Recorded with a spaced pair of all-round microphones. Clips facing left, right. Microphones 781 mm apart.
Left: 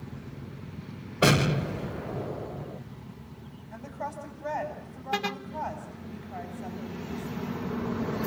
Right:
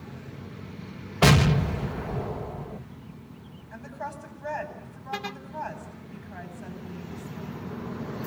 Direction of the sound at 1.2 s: 35° right (ahead or behind).